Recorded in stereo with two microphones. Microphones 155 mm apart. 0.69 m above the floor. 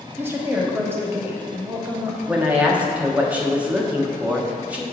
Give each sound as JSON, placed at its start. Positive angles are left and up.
{"t": 0.2, "sound": "a woman speaking", "side_deg": -15, "distance_m": 1.1}
{"t": 2.3, "sound": "a woman speaking", "side_deg": -10, "distance_m": 1.1}